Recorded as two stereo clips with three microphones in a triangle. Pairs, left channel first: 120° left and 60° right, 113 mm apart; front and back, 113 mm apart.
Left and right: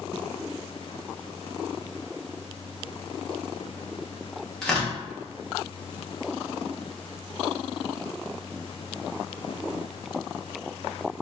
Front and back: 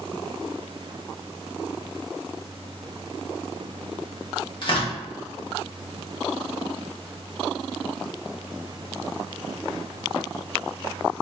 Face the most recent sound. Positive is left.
turn(degrees=35)